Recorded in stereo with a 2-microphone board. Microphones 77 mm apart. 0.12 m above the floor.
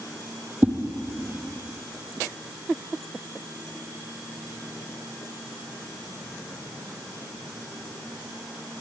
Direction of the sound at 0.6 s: 25° right (ahead or behind).